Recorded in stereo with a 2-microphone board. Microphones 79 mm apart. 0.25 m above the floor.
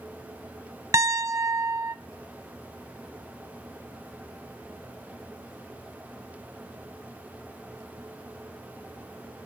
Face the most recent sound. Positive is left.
turn(degrees=-40)  # may be behind; listen again after turning